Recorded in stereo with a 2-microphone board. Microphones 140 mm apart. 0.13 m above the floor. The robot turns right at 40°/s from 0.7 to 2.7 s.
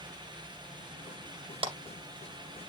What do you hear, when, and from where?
1.6 s a clap: 40° right (ahead or behind), 2 m; by 1.7 s 45° right (ahead or behind), 2 m